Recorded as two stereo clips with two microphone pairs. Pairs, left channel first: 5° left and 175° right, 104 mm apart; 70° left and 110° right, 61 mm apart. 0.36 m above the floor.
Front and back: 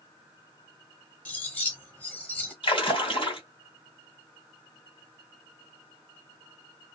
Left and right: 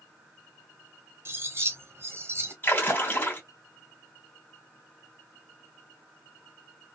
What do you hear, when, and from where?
1.2 s cutlery clinking: 70° right, 1.0 m
2.6 s a splash: 25° left, 2 m